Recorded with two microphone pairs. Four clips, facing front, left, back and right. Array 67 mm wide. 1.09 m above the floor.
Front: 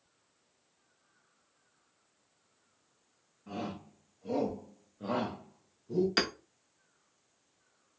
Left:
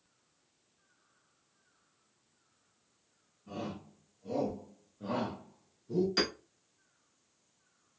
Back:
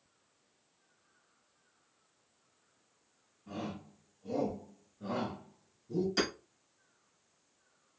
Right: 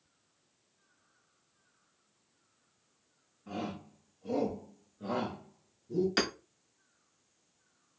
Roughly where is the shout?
Ahead right.